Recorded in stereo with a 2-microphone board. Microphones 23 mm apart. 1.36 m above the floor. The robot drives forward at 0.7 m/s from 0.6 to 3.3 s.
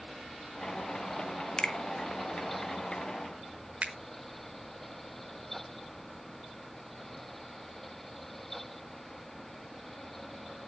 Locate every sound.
1.6 s a finger snap: 40° left (ahead or behind), 0.7 m; by 1.7 s 35° left (ahead or behind), 0.8 m
3.8 s a finger snap: 60° right (ahead or behind), 1.2 m